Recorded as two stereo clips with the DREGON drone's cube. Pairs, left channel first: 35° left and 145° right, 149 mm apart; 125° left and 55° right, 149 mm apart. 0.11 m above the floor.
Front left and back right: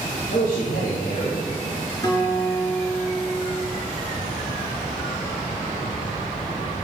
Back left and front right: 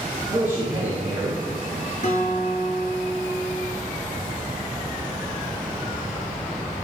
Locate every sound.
0.3 s a man speaking: 20° left, 2.5 m
2.0 s a guitar: 95° left, 2 m